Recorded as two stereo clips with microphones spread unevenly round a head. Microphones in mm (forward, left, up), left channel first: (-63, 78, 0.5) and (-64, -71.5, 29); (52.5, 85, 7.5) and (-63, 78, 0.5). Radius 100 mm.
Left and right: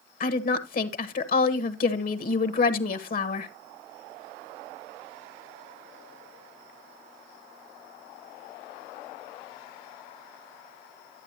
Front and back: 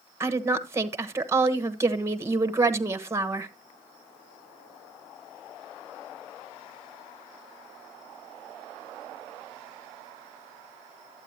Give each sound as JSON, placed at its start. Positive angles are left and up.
{"t": 0.2, "sound": "a woman speaking", "azimuth_deg": 115, "distance_m": 1.2}